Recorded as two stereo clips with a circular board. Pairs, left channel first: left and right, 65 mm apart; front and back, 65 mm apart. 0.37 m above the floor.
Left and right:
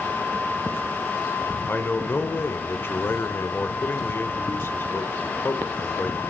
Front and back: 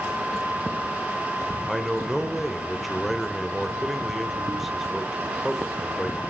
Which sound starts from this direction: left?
A man speaking, at 1.7 s.